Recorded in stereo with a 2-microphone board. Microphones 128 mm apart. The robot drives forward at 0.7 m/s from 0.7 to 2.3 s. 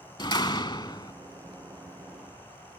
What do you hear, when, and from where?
0.2 s a door slam: 40° left (ahead or behind); by 1.1 s 35° left (ahead or behind)